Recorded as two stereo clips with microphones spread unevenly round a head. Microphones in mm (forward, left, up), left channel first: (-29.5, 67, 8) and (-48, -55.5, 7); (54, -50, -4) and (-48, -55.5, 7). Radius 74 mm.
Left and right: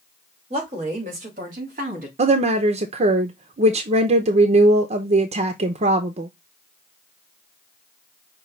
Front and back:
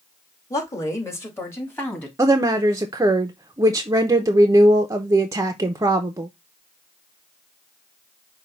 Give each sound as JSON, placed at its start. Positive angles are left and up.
{"t": 0.5, "sound": "a woman speaking", "azimuth_deg": -50, "distance_m": 2.0}
{"t": 2.2, "sound": "a woman speaking", "azimuth_deg": -115, "distance_m": 0.6}